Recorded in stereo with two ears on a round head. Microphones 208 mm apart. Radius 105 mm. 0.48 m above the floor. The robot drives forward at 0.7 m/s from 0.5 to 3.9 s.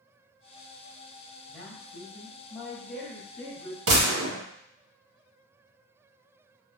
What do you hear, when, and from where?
1.5 s a man speaking: 5° left (ahead or behind), 1.6 m; by 3.8 s centre (ahead or behind), 3 m
3.9 s a gunshot: 75° right (ahead or behind), 2 m